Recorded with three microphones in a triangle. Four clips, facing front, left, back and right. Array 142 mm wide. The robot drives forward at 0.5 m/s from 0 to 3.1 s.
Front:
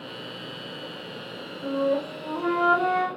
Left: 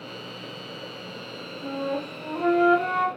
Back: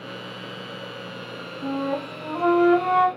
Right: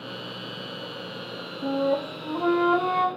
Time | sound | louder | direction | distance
1.6 | a flute | right 5 dB, front 2 dB | 150° right | 1.9 m